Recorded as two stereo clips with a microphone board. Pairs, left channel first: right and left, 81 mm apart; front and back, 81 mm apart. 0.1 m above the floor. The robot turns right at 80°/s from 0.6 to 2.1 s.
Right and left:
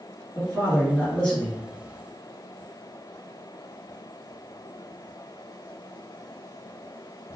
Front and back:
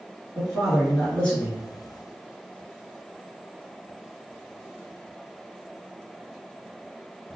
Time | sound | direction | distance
0.3 | a man speaking | 100° right | 1.8 m